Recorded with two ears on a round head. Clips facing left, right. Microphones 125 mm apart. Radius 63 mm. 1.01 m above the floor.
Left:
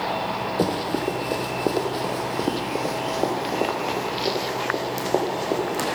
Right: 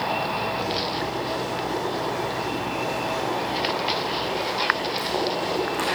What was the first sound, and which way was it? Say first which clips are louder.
Running footsteps: left 3 dB; 60° left (ahead or behind).